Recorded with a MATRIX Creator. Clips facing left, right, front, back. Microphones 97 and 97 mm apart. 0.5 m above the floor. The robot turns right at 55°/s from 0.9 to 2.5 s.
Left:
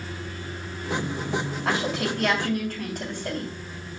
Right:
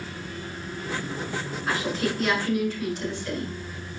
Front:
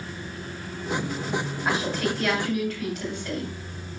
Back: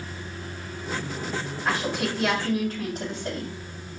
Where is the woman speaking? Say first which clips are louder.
Even, even; 80° left, 3.5 m; by 3.5 s 125° left, 3.5 m.